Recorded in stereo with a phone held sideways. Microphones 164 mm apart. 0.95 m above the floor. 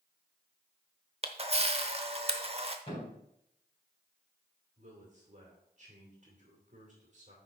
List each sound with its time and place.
1.2 s a camera shutter: 40° right (ahead or behind), 0.8 m
2.9 s a thud: 35° left (ahead or behind), 3.5 m
4.8 s a man speaking: 50° right (ahead or behind), 2.5 m